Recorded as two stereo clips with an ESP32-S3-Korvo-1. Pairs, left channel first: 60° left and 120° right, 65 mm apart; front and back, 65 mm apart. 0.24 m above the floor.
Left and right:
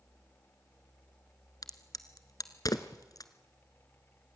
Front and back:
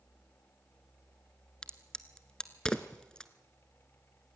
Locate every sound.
1.6 s a crack: 75° left, 1.3 m